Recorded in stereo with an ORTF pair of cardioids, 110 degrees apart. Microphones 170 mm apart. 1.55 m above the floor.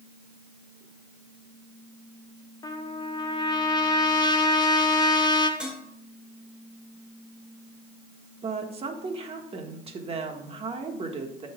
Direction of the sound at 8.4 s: 35° right.